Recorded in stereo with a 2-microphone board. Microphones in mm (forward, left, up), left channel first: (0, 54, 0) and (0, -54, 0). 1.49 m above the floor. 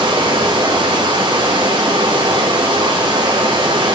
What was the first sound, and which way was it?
Running water, 45° right (ahead or behind).